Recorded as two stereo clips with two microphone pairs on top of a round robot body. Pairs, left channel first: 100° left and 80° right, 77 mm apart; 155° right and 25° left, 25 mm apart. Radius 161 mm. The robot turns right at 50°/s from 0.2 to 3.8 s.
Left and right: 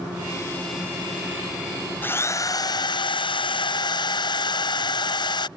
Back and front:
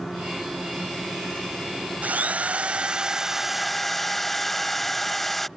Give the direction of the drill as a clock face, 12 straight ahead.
11 o'clock.